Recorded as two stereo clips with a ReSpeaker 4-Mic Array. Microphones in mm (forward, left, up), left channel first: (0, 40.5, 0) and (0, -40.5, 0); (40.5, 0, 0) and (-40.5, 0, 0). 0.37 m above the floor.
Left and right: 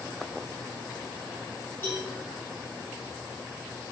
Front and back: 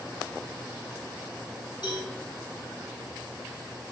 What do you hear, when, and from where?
1.8 s a cowbell: 25° left, 5 m